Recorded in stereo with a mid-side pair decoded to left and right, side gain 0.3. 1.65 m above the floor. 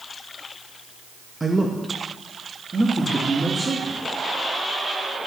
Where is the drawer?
I don't hear a drawer.